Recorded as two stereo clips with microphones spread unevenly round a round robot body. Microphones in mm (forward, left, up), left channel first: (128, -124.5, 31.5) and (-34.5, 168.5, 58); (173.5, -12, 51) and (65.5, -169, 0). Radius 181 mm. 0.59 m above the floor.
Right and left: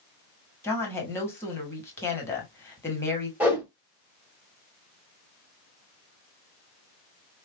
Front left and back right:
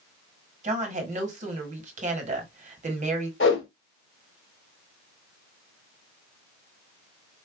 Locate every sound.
0.6 s a woman speaking: 140° right, 1.3 m
3.4 s a whoosh: 30° left, 2.0 m